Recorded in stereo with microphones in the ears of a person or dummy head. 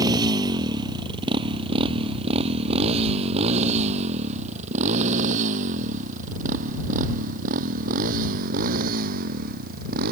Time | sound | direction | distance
0.0 | a motorcycle | 25° right (ahead or behind) | ?